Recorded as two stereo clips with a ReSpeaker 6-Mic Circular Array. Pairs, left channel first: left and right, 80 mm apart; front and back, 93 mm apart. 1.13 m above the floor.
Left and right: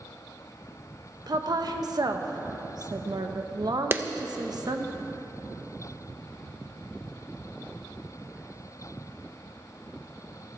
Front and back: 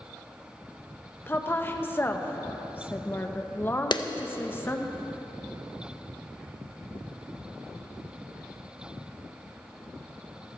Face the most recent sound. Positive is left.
turn(degrees=-30)